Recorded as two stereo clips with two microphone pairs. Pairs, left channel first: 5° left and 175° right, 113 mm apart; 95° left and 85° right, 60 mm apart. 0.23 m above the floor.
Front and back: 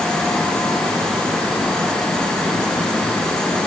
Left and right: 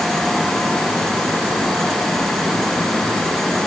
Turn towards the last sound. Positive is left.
No sound to turn to.